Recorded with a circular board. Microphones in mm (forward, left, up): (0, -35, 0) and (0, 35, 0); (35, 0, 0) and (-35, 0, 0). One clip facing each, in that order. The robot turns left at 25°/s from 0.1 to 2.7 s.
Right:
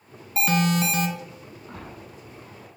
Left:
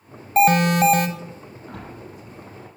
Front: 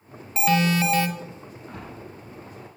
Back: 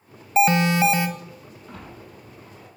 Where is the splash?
60° left, 5 m; by 2.7 s 35° left, 5 m.